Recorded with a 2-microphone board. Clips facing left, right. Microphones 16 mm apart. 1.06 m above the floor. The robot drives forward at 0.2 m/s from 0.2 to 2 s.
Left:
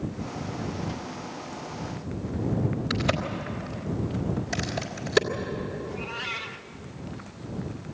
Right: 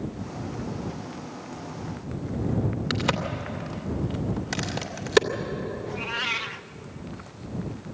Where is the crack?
35° right (ahead or behind), 2 m.